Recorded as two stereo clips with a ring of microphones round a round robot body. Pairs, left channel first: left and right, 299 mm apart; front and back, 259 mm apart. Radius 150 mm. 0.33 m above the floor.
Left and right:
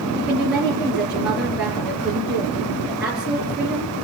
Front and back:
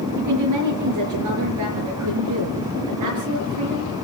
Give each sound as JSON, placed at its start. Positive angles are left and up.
{"t": 0.1, "sound": "a woman speaking", "azimuth_deg": -175, "distance_m": 5.5}